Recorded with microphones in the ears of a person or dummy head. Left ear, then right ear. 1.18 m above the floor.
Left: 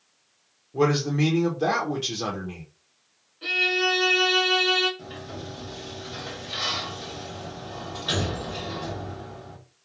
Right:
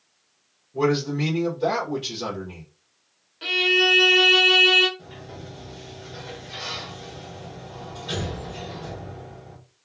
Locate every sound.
0.7 s a man speaking: 65° left (ahead or behind), 0.7 m
3.4 s a violin: 30° right (ahead or behind), 0.6 m
5.0 s a sliding door: 35° left (ahead or behind), 1.2 m